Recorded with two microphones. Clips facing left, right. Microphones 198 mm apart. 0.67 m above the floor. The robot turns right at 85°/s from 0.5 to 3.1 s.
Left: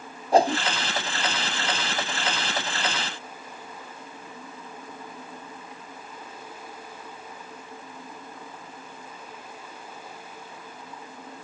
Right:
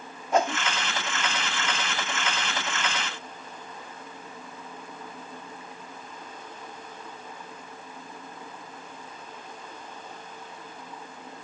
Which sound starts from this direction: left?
A whoosh, at 0.3 s.